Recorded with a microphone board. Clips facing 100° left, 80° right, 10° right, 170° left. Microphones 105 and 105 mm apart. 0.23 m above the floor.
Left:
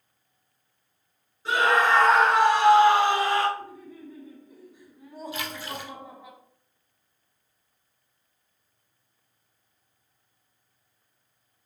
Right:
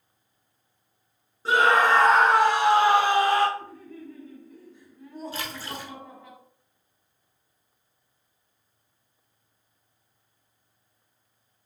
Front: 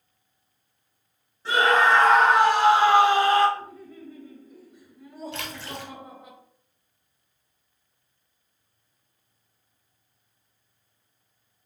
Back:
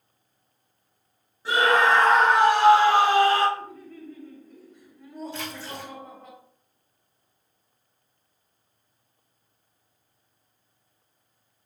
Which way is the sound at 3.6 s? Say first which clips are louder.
Right 1 dB, even; 55° left.